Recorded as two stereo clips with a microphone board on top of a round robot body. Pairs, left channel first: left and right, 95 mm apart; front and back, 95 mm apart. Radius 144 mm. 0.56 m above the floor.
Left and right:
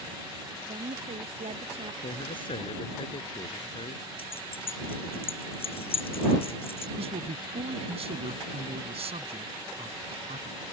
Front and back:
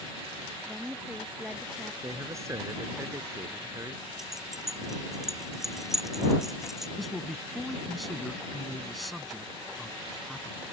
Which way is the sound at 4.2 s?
95° left.